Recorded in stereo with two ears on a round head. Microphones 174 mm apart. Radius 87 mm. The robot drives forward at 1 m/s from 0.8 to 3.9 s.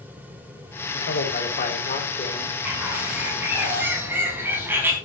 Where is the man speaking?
55° left (ahead or behind), 3 m; by 2.5 s 35° left (ahead or behind), 4 m.